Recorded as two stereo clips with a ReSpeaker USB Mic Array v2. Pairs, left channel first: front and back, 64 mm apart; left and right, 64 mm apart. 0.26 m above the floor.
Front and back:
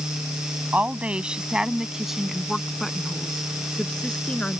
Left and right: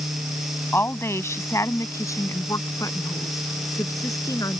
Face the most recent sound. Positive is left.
turn(degrees=75)